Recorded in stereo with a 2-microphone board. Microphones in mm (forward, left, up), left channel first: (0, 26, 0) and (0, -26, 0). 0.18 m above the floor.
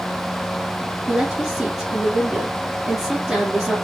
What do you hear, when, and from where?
1.1 s a woman speaking: 15° right (ahead or behind), 3 m